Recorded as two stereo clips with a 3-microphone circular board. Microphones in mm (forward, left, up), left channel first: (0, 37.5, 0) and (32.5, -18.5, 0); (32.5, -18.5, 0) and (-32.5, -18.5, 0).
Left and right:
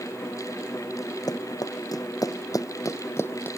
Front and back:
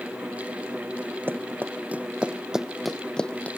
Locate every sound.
1.3 s running footsteps: 125° left; by 3.5 s 65° left